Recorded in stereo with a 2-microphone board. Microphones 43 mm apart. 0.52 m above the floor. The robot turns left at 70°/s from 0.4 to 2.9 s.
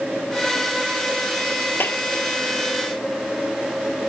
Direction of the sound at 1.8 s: 50° left (ahead or behind).